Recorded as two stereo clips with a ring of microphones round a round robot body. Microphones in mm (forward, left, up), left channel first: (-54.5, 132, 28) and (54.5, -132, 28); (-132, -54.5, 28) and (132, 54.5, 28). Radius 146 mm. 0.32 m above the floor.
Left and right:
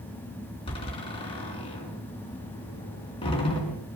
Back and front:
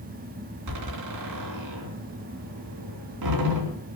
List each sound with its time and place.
0.7 s a door slam: 40° left, 3 m